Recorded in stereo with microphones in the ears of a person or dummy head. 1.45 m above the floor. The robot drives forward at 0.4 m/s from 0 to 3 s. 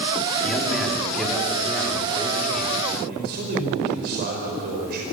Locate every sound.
0.4 s a man speaking: 5° left (ahead or behind), 4 m
3.1 s a man speaking: 55° right (ahead or behind), 5 m